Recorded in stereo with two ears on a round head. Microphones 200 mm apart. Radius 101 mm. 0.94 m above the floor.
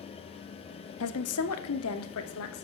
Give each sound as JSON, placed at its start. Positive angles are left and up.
{"t": 1.0, "sound": "a woman speaking", "side_deg": 75, "distance_m": 1.5}